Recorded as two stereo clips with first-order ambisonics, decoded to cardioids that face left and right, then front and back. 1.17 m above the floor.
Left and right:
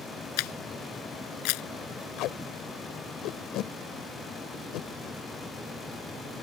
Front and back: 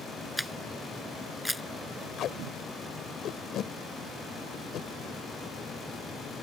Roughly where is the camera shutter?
Left.